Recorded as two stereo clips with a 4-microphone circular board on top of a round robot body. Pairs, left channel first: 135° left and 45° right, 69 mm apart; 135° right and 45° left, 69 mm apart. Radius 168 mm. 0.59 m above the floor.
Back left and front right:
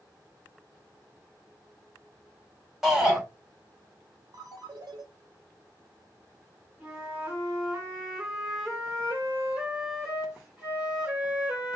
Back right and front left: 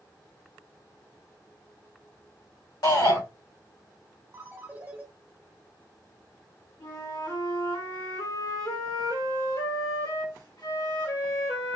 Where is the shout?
130° right, 3 m.